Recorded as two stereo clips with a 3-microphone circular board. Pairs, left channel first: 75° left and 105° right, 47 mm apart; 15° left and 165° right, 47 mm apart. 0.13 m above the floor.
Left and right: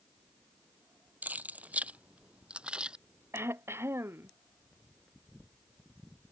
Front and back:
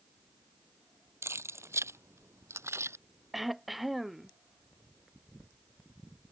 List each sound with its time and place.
1.2 s keys jangling: 155° right; by 3.0 s 175° right
3.3 s throat clearing: 80° right